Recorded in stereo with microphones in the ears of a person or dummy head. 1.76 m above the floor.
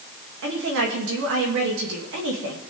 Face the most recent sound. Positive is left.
turn(degrees=-70)  # may be behind; listen again after turning